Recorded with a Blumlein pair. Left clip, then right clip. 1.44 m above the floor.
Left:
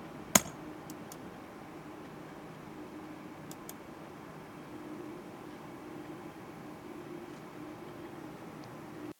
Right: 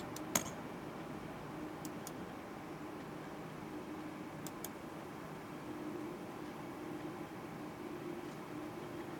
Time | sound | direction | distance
0.3 | tapping | 60° left | 0.7 m